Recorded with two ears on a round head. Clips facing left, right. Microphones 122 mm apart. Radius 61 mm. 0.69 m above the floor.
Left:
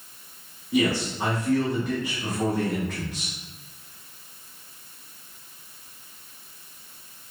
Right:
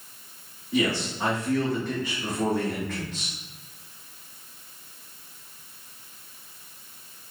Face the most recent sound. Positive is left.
turn(degrees=10)  # may be behind; listen again after turning